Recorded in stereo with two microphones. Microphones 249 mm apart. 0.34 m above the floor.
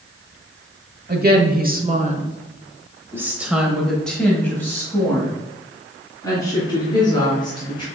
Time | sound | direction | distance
1.1 | a woman speaking | 40° right (ahead or behind) | 1.2 m